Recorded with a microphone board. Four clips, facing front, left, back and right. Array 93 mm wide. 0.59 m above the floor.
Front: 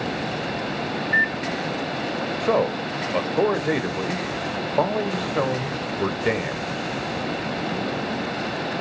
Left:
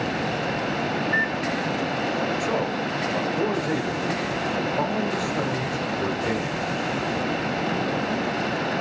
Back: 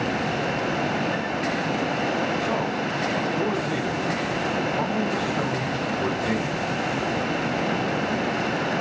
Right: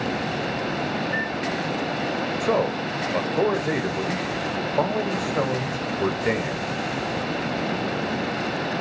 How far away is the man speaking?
About 2.0 m.